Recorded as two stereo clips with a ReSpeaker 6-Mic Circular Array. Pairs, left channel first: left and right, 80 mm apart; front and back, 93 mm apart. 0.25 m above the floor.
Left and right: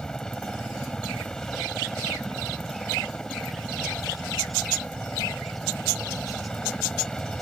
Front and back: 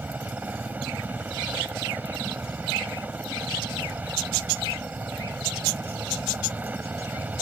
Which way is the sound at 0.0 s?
155° left.